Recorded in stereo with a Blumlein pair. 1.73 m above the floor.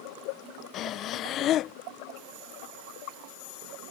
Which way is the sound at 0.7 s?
30° left.